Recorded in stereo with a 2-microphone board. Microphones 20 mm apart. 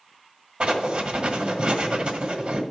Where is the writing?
55° right (ahead or behind), 1.7 m.